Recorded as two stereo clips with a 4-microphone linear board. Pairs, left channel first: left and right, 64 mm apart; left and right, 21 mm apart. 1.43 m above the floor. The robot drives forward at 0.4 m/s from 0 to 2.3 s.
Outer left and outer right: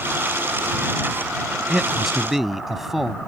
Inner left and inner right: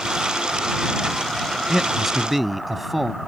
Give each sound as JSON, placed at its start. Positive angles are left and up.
{"t": 1.7, "sound": "a man speaking", "side_deg": -5}